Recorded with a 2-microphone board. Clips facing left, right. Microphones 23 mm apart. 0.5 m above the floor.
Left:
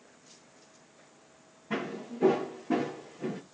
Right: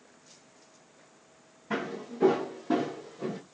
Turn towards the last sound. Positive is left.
turn(degrees=-65)  # may be behind; listen again after turning